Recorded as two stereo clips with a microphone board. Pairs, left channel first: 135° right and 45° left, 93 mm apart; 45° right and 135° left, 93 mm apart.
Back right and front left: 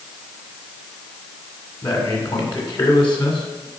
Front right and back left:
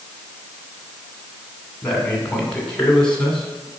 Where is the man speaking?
125° right, 2 m.